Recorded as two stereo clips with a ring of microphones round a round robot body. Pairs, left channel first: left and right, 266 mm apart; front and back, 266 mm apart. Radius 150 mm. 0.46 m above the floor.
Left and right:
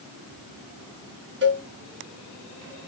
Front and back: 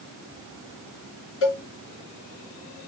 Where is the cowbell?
45° right, 3.5 m.